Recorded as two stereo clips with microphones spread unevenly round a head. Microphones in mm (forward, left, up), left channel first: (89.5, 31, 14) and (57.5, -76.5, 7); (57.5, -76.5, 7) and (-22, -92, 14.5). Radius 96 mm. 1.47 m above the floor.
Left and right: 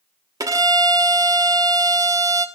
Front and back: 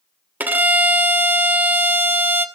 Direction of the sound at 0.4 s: 140° right.